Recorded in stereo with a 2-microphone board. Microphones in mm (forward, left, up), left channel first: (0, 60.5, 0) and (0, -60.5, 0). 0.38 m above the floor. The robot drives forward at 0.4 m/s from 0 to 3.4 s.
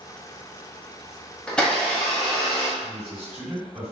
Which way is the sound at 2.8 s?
15° left (ahead or behind).